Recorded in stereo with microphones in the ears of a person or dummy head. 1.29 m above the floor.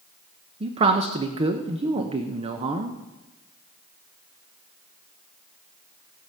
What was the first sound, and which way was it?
A man speaking, 35° right (ahead or behind).